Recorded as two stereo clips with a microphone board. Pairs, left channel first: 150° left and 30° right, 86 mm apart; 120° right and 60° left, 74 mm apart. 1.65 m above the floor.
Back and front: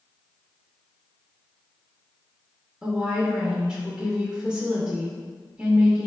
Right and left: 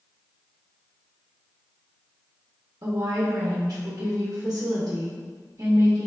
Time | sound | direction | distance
2.8 | a woman speaking | 50° left | 0.9 m